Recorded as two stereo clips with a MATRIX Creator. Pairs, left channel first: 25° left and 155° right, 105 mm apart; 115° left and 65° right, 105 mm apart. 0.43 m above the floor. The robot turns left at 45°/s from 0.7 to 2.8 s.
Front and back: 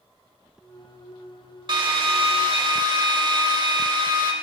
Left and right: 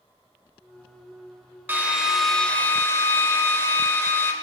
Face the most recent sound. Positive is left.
turn(degrees=175)